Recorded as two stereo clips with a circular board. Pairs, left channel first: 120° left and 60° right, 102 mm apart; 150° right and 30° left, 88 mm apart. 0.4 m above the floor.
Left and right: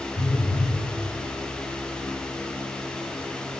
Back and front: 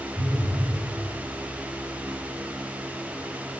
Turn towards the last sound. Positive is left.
turn(degrees=135)